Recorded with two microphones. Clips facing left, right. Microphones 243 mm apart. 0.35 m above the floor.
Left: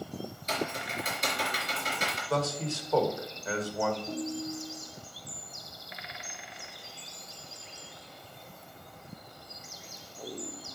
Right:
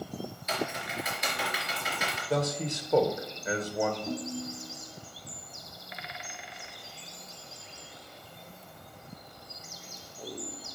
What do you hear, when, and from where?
0.5 s typing on a keyboard: 35° left (ahead or behind), 3.5 m
2.3 s a man speaking: 20° right (ahead or behind), 1.2 m
4.1 s a ringtone: 75° right (ahead or behind), 1.0 m